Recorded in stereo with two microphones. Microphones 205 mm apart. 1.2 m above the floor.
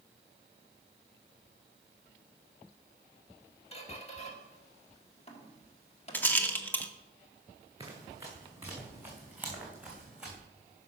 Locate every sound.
3.7 s a squeak: 30° left (ahead or behind), 1.8 m
6.1 s a rattle: 10° left (ahead or behind), 1.1 m
7.8 s running footsteps: 15° right (ahead or behind), 5 m; by 10.4 s centre (ahead or behind), 4.5 m